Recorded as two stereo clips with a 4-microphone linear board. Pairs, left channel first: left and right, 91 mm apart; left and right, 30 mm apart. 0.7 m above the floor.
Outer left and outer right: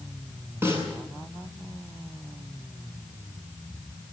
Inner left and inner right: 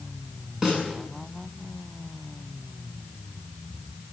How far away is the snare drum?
About 8.5 m.